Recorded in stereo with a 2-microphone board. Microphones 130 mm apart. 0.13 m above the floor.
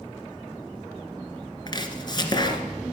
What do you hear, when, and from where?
1.7 s chopping: 35° left (ahead or behind), 1.7 m